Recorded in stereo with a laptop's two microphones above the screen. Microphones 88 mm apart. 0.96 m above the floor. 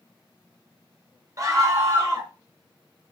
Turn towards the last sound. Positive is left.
turn(degrees=-35)  # may be behind; listen again after turning